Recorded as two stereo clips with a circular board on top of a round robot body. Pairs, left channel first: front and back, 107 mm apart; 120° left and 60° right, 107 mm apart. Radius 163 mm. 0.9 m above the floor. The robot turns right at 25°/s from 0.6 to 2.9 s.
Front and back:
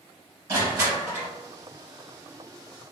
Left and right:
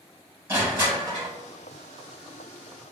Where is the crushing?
130° right, 2.0 m; by 1.3 s 110° right, 2.0 m.